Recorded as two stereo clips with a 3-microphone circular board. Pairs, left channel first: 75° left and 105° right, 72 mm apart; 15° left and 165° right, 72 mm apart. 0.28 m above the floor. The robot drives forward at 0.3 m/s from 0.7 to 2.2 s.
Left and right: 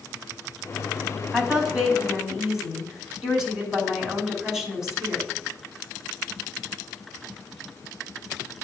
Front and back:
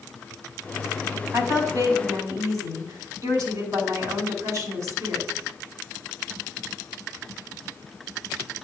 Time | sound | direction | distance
1.3 | a woman speaking | 170° left | 2.5 m